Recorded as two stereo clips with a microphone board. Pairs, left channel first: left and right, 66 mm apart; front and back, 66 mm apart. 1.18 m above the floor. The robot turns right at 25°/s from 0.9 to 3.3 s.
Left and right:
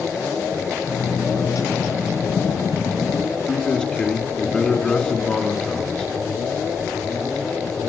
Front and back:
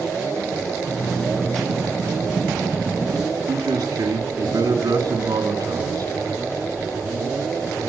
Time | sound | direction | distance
3.5 | a man speaking | 170° left | 2.5 m